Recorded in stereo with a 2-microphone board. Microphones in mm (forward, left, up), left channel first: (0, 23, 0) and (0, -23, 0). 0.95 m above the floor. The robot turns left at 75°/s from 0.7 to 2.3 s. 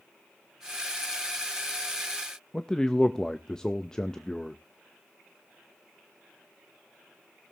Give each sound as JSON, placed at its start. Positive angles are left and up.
{"t": 2.5, "sound": "a man speaking", "side_deg": 15, "distance_m": 0.6}